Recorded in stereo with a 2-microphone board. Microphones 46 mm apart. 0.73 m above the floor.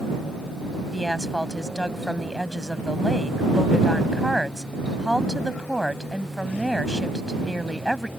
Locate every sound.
0.9 s a woman speaking: 5° right (ahead or behind)